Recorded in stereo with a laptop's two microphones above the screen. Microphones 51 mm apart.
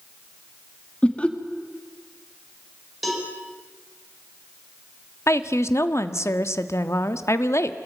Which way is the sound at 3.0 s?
Centre (ahead or behind).